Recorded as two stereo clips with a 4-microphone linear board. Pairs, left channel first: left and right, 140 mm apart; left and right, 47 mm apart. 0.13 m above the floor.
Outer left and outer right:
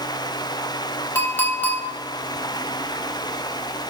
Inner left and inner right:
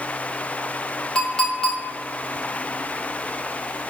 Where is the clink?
15° left (ahead or behind), 1.1 m.